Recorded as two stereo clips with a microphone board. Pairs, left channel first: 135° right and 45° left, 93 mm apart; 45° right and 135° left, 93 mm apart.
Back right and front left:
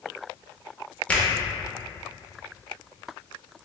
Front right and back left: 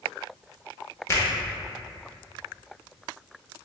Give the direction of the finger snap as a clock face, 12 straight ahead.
2 o'clock.